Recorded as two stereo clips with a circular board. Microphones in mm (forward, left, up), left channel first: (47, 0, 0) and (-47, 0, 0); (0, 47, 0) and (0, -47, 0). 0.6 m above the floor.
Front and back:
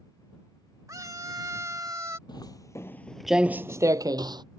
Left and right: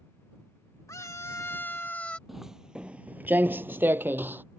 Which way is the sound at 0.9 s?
135° left.